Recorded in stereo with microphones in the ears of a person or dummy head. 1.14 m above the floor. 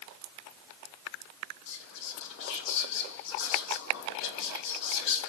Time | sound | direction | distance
1.7 | whispering | 60° left (ahead or behind) | 1.2 m